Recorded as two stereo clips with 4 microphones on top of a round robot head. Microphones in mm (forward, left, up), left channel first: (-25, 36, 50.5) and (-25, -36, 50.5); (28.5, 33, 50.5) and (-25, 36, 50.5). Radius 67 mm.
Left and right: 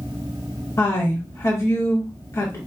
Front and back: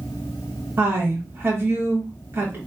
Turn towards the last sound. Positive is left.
turn(degrees=135)